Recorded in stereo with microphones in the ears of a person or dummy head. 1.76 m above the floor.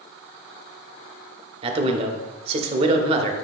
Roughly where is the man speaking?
Right.